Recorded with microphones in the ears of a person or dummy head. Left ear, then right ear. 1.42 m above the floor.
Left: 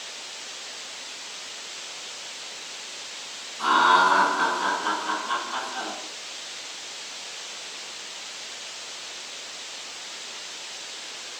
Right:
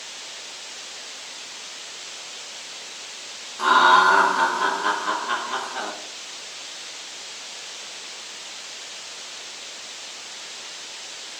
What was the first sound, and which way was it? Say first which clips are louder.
Laughter: right 3 dB; 80° right.